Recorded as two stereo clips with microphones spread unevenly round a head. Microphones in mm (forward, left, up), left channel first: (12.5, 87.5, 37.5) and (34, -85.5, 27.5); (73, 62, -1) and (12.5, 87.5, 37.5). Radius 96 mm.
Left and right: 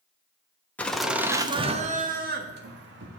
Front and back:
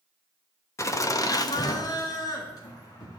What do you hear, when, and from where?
0.8 s laughter: 15° left, 1.2 m; by 3.2 s 70° right, 1.9 m